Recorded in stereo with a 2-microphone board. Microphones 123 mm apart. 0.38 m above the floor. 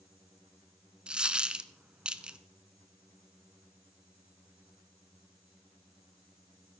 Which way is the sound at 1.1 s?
10° right (ahead or behind).